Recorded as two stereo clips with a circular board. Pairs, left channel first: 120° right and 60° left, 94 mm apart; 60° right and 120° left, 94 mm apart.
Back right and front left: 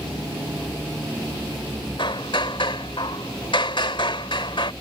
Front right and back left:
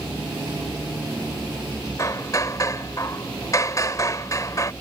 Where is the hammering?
110° right.